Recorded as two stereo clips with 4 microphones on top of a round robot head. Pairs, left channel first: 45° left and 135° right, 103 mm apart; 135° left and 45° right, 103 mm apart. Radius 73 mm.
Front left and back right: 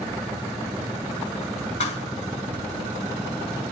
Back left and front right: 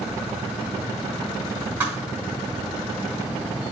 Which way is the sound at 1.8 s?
25° left.